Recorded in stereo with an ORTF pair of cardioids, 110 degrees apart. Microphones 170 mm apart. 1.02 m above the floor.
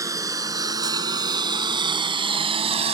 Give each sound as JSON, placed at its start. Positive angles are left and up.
{"t": 0.0, "sound": "a lawn mower", "azimuth_deg": -20}